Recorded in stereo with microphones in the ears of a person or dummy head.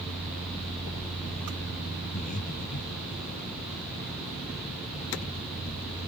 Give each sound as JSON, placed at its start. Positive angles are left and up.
{"t": 2.1, "sound": "breathing", "side_deg": 40}